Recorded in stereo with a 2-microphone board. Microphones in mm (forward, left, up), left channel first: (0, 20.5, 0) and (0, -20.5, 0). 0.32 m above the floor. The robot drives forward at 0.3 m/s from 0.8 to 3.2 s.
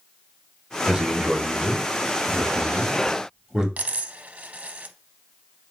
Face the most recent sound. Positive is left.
turn(degrees=-40)  # may be behind; listen again after turning